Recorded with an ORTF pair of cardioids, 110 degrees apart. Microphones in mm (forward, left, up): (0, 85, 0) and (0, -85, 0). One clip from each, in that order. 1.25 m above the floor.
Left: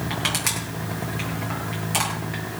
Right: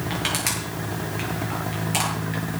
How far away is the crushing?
About 7.5 m.